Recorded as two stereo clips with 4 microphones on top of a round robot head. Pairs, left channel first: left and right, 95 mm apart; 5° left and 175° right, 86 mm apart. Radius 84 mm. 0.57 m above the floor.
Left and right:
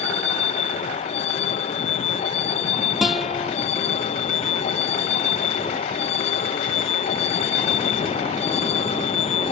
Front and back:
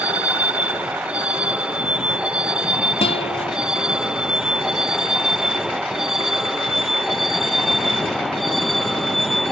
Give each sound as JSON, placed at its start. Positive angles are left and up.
{"t": 0.0, "sound": "a vehicle", "azimuth_deg": 110}
{"t": 3.0, "sound": "a guitar", "azimuth_deg": 0}